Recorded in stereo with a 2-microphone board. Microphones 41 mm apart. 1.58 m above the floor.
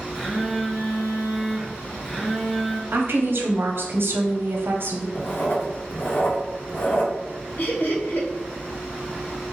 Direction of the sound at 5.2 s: 60° left (ahead or behind).